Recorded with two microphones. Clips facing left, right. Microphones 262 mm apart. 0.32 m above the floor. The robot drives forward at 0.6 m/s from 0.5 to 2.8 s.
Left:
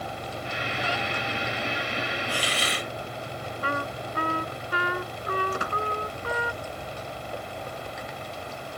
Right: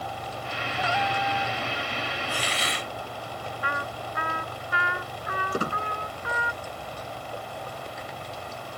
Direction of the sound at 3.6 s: 40° left (ahead or behind).